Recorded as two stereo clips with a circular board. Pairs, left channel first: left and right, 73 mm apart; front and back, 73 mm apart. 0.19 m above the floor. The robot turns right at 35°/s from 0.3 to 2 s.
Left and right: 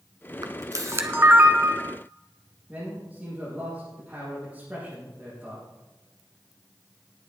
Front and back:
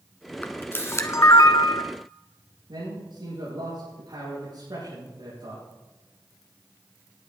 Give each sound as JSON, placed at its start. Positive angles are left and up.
{"t": 0.4, "sound": "a camera shutter", "azimuth_deg": -65, "distance_m": 1.2}
{"t": 2.7, "sound": "a man speaking", "azimuth_deg": -160, "distance_m": 5.0}